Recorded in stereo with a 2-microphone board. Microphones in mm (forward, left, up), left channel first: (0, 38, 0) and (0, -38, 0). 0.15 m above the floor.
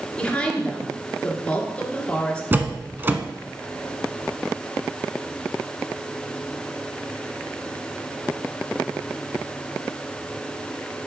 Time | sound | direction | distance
0.2 | a woman speaking | 15° left (ahead or behind) | 2.5 m
2.5 | a door slam | 25° right (ahead or behind) | 0.9 m